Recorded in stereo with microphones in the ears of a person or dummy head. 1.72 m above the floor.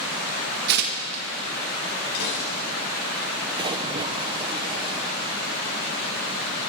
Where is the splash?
25° right (ahead or behind), 0.9 m.